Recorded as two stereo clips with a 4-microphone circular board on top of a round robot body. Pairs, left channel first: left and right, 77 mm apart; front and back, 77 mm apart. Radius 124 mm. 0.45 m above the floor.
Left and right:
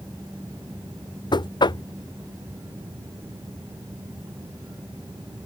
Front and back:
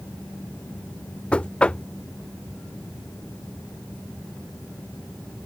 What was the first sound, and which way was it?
Knocking, 75° left.